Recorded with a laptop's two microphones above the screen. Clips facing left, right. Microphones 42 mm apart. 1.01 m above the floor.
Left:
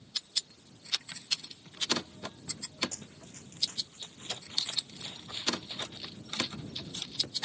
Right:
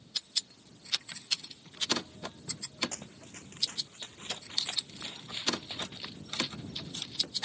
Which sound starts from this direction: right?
Running footsteps, at 2.9 s.